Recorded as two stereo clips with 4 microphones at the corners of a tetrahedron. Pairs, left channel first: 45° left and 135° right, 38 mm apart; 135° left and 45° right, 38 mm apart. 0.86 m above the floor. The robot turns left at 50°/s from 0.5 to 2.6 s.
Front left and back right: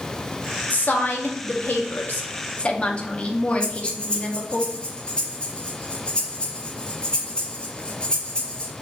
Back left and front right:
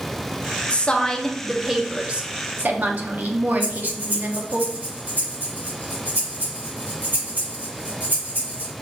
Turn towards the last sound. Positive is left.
turn(degrees=-15)